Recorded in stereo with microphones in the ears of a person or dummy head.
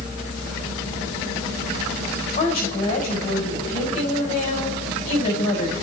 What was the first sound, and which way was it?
A woman speaking, 40° left (ahead or behind).